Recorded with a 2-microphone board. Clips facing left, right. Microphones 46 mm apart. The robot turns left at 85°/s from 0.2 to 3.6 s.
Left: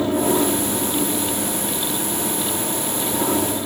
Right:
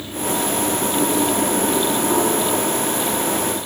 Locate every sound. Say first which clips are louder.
0.0 s an aircraft: left 5 dB; 60° left; by 3.7 s 130° left